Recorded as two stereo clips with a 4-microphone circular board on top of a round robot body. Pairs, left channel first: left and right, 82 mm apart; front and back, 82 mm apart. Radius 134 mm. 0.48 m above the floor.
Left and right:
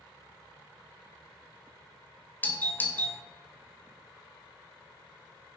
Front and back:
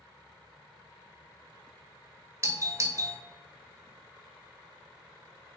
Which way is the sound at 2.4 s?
145° left.